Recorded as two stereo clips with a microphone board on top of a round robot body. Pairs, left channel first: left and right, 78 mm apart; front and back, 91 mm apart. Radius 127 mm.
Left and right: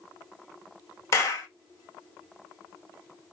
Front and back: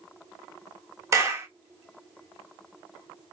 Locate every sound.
1.1 s a clap: 130° left, 1.2 m